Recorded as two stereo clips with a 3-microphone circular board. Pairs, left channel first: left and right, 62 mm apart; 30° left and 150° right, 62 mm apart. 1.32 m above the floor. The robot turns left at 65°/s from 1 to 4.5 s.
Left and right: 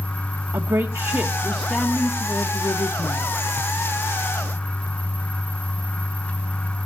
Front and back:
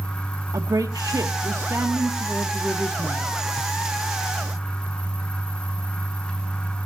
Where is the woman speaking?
125° right, 1.3 m; by 3.3 s 85° left, 1.3 m.